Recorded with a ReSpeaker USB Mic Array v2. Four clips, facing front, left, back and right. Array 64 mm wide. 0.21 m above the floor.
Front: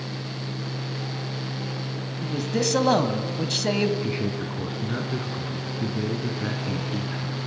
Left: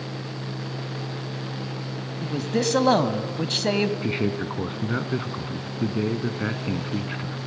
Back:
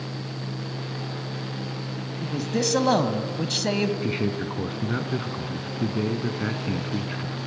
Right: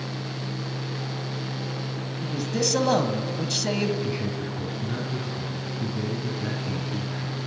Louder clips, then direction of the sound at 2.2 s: Left 3 dB, front 1 dB; 85° left.